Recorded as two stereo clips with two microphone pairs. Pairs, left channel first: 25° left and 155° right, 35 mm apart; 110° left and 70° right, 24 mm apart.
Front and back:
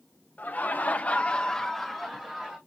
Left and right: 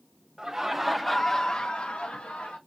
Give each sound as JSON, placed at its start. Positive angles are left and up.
{"t": 0.4, "sound": "laughter", "azimuth_deg": 0, "distance_m": 1.0}